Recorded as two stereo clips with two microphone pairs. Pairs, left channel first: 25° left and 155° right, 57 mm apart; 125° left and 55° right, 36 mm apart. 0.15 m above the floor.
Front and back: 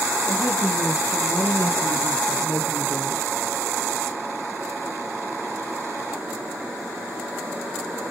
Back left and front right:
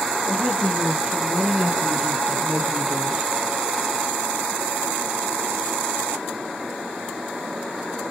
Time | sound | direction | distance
0.3 | a woman speaking | 5° left | 5.5 m